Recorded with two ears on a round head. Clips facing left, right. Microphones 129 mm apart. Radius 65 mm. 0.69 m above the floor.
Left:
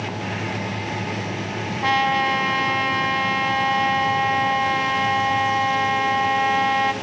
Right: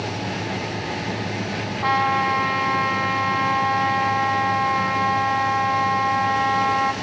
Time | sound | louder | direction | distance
1.8 | a trumpet | even | 25° left (ahead or behind) | 2 m